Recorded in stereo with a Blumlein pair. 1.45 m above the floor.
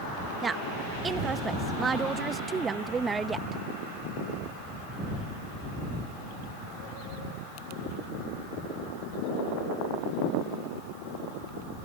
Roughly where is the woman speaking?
Ahead.